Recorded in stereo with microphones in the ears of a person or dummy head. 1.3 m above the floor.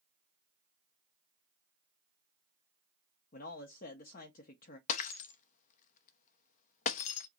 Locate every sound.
3.3 s a man speaking: 50° left (ahead or behind), 0.7 m
4.9 s breaking glass: 45° left (ahead or behind), 0.9 m